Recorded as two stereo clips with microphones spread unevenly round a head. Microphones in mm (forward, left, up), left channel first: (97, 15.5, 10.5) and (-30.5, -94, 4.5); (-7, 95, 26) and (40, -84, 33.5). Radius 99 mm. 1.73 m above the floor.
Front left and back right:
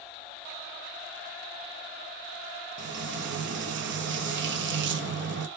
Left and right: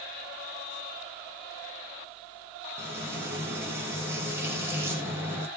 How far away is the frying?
About 0.6 m.